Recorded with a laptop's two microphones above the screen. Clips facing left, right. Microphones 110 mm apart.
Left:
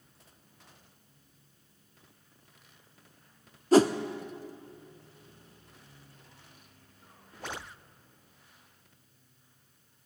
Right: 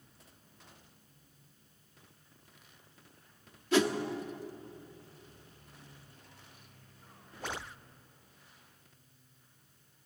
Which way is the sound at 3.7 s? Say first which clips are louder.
Left 7 dB; 40° left (ahead or behind).